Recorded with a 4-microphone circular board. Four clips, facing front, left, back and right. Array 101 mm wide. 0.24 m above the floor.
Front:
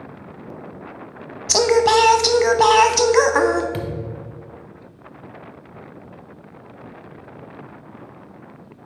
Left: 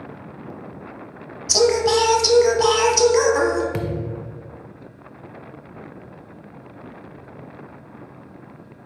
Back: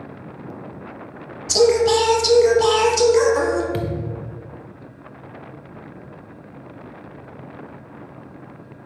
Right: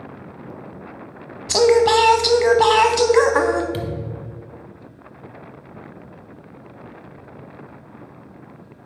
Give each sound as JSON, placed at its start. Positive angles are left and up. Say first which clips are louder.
{"t": 1.5, "sound": "singing", "louder": "right 3 dB, even", "azimuth_deg": -30, "distance_m": 0.7}
{"t": 3.7, "sound": "a thud", "louder": "left 1 dB, back 2 dB", "azimuth_deg": 90, "distance_m": 0.6}